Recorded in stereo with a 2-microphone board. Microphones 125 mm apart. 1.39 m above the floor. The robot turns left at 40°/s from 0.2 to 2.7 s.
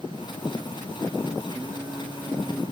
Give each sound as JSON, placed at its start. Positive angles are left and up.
{"t": 1.5, "sound": "singing", "azimuth_deg": -150, "distance_m": 0.6}